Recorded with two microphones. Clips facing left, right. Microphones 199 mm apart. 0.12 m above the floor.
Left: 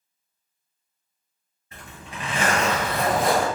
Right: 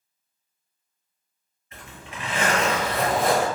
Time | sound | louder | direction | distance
1.7 | a zipper | left 1 dB | 35° left (ahead or behind) | 1.8 m